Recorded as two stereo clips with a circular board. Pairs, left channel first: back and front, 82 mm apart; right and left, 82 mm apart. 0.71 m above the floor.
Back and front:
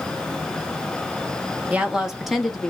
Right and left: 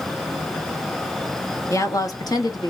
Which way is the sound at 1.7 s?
65° right.